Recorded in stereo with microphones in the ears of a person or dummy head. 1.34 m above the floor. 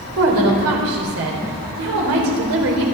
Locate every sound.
0.2 s a woman speaking: 80° right, 4 m